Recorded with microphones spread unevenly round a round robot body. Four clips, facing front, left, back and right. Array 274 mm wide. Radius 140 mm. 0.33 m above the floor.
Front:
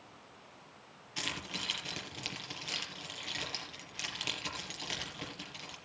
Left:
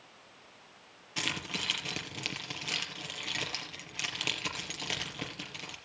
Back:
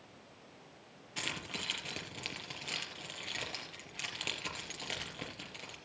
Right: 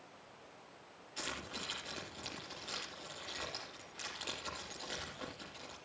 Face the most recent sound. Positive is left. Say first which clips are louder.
# left 6 dB, front 1 dB
turn(degrees=90)